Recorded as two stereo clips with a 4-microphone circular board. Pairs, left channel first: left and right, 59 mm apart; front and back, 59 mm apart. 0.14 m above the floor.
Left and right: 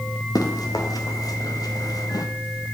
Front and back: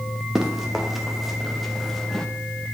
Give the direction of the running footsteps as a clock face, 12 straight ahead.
9 o'clock.